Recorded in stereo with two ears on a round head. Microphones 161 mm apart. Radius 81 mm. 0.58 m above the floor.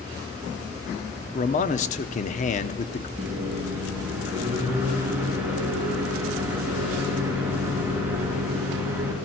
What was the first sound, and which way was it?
A man speaking, 40° left (ahead or behind).